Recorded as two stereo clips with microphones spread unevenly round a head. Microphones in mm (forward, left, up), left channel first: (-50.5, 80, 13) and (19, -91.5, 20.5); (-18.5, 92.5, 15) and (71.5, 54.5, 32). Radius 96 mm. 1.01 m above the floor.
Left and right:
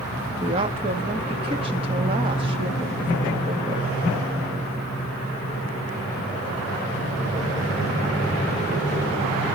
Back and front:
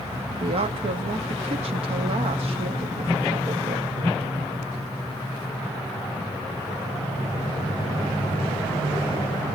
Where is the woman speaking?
5° right, 2 m.